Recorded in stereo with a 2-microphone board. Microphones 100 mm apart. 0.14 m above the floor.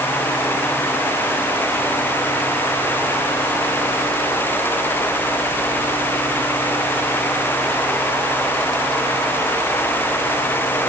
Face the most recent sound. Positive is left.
No sound to turn to.